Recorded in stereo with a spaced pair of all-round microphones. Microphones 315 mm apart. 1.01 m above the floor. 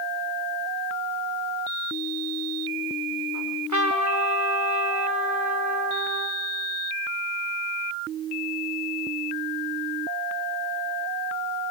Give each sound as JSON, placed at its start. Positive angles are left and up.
{"t": 3.3, "sound": "a trumpet", "side_deg": -65, "distance_m": 1.9}